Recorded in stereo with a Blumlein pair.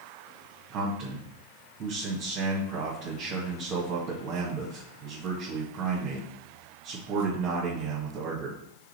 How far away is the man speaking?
About 1.9 m.